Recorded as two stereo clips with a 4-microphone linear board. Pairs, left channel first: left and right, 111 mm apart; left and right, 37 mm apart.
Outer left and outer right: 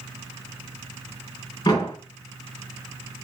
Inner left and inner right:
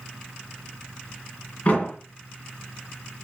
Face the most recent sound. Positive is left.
turn(degrees=35)  # may be behind; listen again after turning